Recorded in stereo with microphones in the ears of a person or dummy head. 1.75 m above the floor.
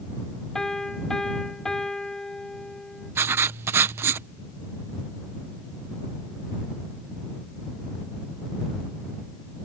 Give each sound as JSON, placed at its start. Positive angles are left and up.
{"t": 0.6, "sound": "a piano", "side_deg": 5}
{"t": 3.1, "sound": "writing", "side_deg": -20}